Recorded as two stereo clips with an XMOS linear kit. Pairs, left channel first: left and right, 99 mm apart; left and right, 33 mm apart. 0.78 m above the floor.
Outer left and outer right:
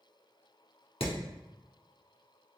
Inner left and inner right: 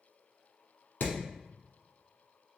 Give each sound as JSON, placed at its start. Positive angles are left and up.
{"t": 1.0, "sound": "hammering", "side_deg": 75, "distance_m": 1.1}